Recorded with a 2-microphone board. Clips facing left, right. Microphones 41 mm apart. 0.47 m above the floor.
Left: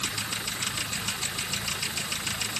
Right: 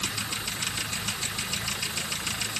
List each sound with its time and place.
Only background noise.